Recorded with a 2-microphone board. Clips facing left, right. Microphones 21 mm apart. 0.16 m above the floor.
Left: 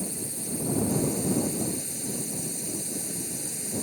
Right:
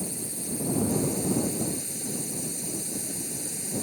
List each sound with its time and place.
0.0 s a drone: 5° right (ahead or behind)